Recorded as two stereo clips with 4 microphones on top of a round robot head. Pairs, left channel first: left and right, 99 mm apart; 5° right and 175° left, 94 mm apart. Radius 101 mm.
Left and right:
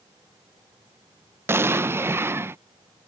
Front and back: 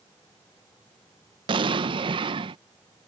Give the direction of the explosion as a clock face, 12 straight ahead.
5 o'clock.